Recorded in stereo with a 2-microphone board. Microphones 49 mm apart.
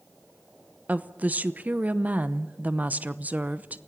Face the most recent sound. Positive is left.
turn(degrees=-35)  # may be behind; listen again after turning